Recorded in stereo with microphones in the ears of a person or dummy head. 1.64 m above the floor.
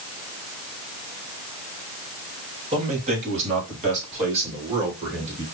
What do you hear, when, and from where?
2.7 s a man speaking: 40° right (ahead or behind), 1.7 m